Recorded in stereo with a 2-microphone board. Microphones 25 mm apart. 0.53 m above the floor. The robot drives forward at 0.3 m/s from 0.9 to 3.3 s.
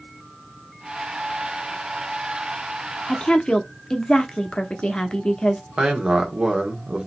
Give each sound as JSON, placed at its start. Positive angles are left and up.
{"t": 3.1, "sound": "a woman speaking", "side_deg": 40, "distance_m": 0.8}
{"t": 5.8, "sound": "a man speaking", "side_deg": -45, "distance_m": 1.4}